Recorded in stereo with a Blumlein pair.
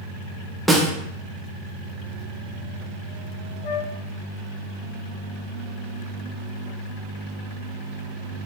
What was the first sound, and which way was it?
A snare drum, 5° right.